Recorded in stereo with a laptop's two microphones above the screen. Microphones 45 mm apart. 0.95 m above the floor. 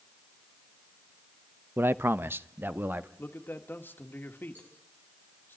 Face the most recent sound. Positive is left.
turn(degrees=-40)  # may be behind; listen again after turning